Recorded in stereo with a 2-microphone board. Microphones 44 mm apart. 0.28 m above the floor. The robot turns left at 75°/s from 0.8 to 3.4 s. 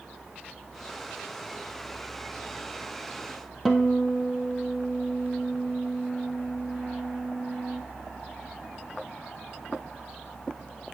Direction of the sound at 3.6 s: Centre (ahead or behind).